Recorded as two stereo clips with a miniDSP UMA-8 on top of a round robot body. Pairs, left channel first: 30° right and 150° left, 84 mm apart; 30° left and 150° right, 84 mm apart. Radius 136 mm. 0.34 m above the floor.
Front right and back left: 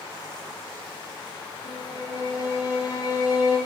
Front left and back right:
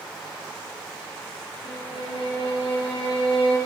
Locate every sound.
1.6 s a violin: 20° left, 4 m